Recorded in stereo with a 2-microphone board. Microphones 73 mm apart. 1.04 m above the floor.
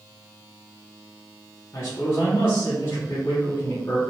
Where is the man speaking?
45° left (ahead or behind), 0.8 m.